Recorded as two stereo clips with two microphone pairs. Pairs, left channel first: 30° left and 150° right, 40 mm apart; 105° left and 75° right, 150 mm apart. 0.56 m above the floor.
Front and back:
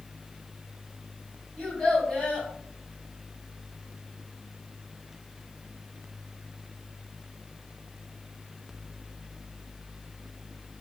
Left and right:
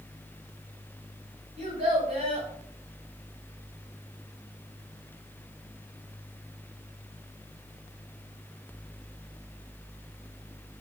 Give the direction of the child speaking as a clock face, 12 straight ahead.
2 o'clock.